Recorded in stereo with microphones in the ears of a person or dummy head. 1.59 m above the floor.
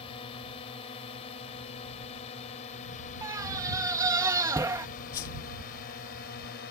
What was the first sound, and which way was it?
A drone, 25° left (ahead or behind).